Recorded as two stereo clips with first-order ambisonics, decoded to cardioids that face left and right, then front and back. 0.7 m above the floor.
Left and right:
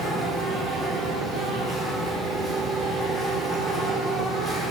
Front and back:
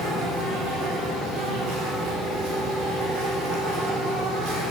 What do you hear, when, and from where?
0.0 s an insect: 175° left, 5.5 m